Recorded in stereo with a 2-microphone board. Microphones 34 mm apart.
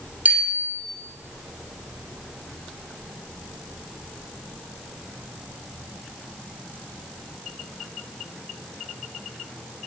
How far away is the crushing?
No crushing in this recording.